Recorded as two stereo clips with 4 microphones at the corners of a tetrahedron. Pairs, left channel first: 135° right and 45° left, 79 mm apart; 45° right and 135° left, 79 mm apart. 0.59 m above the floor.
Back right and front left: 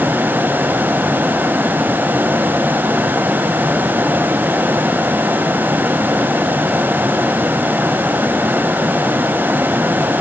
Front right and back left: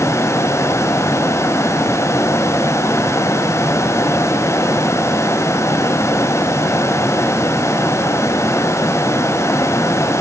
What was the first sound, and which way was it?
Only background noise.